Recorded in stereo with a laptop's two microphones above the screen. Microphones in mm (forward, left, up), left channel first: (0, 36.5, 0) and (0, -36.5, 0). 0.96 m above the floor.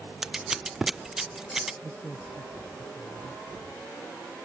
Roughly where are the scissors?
Centre.